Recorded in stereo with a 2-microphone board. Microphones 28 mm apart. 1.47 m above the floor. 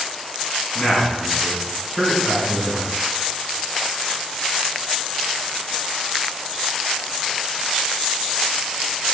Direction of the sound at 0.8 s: 25° left (ahead or behind).